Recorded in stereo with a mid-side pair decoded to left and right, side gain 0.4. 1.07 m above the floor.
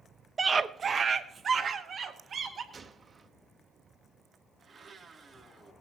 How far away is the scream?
About 1.0 m.